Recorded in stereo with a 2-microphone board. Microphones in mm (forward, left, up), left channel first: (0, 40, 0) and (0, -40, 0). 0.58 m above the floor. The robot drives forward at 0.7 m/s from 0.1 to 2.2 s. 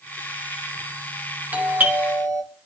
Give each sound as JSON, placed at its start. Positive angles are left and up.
{"t": 1.5, "sound": "a doorbell", "side_deg": -20, "distance_m": 2.5}